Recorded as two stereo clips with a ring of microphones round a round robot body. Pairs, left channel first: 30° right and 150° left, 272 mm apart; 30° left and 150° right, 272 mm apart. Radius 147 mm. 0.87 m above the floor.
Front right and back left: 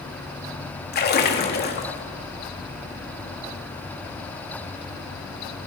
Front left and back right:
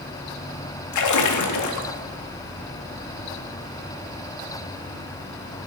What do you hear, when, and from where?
0.9 s a splash: 25° left, 1.8 m